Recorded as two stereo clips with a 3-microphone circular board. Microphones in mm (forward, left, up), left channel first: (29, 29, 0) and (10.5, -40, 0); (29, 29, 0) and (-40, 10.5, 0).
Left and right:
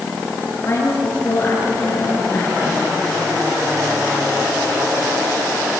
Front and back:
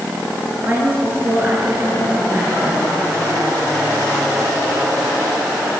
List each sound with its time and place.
0.6 s a woman speaking: 135° left, 8.5 m